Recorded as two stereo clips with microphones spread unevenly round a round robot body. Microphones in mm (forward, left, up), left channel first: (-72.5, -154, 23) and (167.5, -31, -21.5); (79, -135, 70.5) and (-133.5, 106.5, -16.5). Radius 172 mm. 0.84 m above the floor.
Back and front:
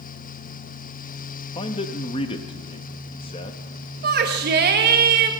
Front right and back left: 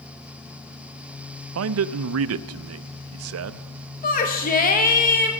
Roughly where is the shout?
Ahead left.